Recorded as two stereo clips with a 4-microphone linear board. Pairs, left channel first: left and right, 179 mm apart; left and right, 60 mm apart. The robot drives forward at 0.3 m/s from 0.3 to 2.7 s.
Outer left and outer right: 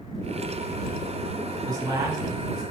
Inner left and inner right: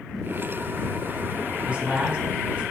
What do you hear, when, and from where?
1.6 s a man speaking: 20° right (ahead or behind), 1.4 m